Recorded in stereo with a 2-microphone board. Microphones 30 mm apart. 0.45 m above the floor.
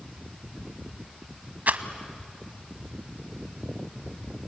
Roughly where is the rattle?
Right.